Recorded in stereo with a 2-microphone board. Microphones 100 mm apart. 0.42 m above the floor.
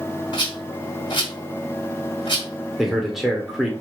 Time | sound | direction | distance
0.3 | a rattle | 50° left (ahead or behind) | 1.4 m
2.8 | a man speaking | centre (ahead or behind) | 0.8 m